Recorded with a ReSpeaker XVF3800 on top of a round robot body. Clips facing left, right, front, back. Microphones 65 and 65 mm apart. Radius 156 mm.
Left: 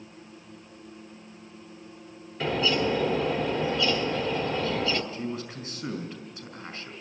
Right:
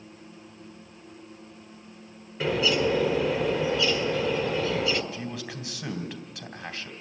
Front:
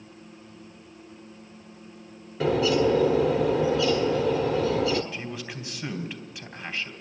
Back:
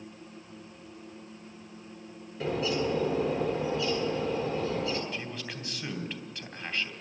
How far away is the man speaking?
About 3 m.